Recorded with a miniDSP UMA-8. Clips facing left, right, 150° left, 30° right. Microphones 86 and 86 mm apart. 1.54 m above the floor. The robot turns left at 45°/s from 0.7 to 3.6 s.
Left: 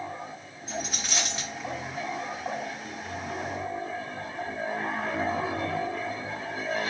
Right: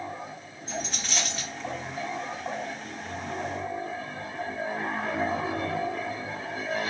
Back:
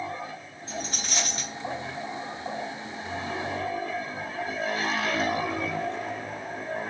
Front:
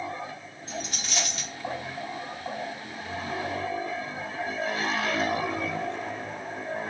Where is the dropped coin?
170° left, 1.2 m; by 1.5 s 135° left, 1.2 m.